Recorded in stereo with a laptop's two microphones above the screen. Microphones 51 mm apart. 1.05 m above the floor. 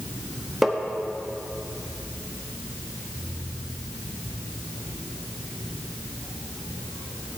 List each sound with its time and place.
0.6 s tapping: centre (ahead or behind), 0.6 m